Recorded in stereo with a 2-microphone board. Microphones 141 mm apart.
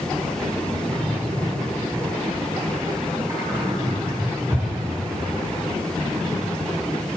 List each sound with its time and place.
0.9 s a drawer: 25° right (ahead or behind), 2 m